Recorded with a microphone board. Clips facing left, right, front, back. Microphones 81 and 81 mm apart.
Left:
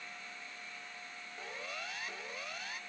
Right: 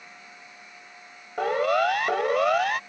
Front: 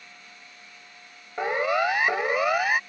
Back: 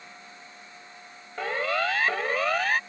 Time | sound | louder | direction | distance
1.4 | a siren | right 24 dB, front 4 dB | 70° right | ?